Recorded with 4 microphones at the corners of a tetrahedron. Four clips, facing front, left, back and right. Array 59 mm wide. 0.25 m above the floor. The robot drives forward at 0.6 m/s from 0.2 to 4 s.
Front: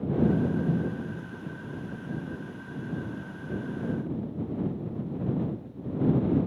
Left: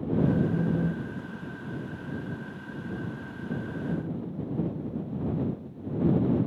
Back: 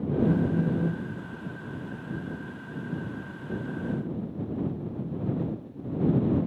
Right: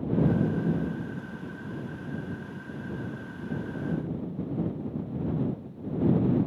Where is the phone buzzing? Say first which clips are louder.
Even, back 1 dB; 160° right, 1.8 m; by 1.1 s 165° right, 2.5 m.